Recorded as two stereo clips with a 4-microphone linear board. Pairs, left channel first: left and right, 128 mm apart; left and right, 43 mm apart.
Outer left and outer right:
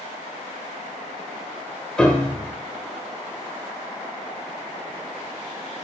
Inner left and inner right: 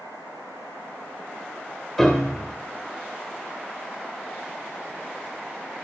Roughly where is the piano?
Centre.